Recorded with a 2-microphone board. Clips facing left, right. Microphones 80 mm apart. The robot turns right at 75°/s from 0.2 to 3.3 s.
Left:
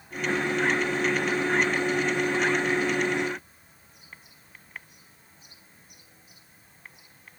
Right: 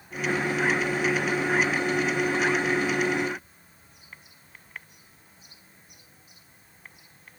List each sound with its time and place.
Only background noise.